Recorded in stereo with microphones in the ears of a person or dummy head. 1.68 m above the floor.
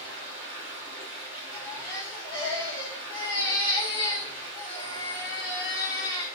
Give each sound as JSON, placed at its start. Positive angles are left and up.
{"t": 0.0, "sound": "running water", "side_deg": -25, "distance_m": 1.6}
{"t": 1.5, "sound": "a baby crying", "side_deg": 15, "distance_m": 2.0}